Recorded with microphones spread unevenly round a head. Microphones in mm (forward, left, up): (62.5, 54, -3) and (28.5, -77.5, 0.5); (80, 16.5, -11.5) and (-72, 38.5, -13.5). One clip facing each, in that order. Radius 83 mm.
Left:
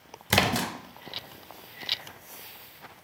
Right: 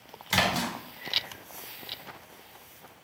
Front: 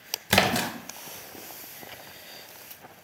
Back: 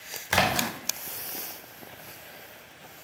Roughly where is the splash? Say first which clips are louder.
Left 2 dB, front 2 dB; ahead left.